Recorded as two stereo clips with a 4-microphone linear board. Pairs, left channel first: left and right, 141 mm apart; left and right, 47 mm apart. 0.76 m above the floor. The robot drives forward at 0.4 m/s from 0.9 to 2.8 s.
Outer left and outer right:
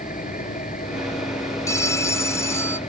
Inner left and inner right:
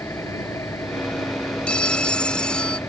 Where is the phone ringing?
25° left (ahead or behind); by 2.8 s 20° left (ahead or behind).